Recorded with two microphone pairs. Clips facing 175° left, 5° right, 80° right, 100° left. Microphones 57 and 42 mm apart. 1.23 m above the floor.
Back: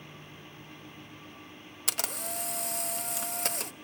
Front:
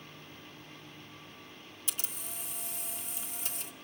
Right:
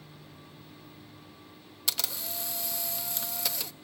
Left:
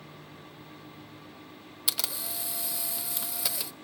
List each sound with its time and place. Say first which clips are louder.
1.9 s a camera shutter: back 10 dB, even; 175° right, 0.6 m